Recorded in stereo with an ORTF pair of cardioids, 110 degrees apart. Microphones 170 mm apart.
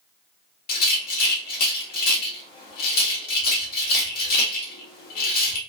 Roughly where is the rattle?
Ahead left.